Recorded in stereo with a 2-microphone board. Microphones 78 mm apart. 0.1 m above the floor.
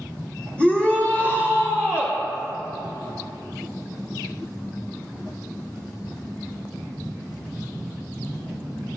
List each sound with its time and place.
0.6 s a shout: 15° left (ahead or behind), 1.5 m; by 2.2 s 35° left (ahead or behind), 2.5 m